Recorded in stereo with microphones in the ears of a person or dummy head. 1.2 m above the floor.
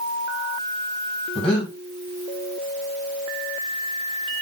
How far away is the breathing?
About 1.2 m.